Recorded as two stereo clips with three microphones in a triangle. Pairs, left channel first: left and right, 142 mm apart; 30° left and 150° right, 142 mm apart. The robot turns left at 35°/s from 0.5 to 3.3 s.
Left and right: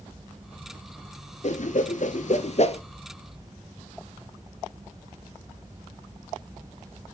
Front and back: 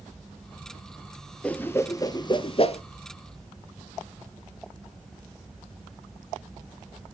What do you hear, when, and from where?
1.4 s a whoosh: 110° left, 0.5 m; by 2.8 s 60° left, 0.5 m